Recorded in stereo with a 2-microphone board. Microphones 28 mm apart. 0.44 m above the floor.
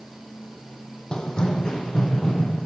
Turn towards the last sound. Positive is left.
turn(degrees=25)  # may be behind; listen again after turning